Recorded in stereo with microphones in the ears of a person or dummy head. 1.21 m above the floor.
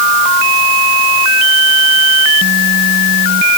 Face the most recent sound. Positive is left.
No sound to turn to.